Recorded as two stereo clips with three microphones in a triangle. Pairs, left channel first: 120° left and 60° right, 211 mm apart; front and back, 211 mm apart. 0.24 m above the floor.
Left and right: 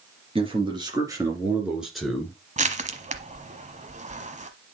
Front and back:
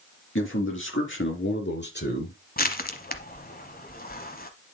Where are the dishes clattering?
No dishes clattering in this recording.